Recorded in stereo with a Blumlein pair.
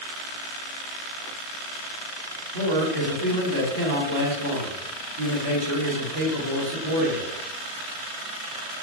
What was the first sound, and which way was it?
A man speaking, 50° right.